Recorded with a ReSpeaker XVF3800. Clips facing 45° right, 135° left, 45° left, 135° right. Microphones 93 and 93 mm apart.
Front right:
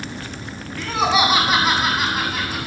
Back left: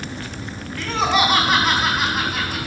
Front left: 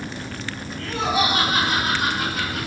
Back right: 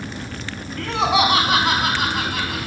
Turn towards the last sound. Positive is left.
turn(degrees=-140)